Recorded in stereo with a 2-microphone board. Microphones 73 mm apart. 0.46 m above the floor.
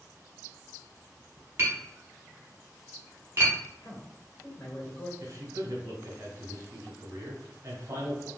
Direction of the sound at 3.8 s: 45° left (ahead or behind).